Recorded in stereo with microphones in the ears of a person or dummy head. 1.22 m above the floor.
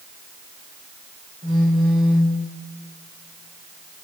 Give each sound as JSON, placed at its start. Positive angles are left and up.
{"t": 1.4, "sound": "a phone buzzing", "side_deg": -20, "distance_m": 1.0}